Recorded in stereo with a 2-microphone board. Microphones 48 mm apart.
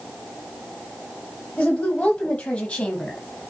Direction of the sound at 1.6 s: 30° left (ahead or behind).